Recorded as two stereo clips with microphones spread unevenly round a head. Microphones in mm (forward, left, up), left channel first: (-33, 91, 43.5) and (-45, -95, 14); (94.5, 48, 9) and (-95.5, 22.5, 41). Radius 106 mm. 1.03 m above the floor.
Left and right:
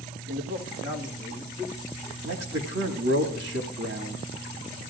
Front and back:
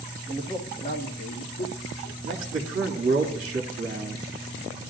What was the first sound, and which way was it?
A man speaking, 75° right.